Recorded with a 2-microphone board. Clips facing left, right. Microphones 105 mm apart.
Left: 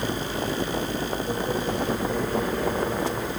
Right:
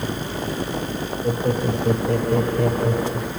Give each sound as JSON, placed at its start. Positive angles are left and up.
{"t": 1.2, "sound": "laughter", "side_deg": -65, "distance_m": 4.5}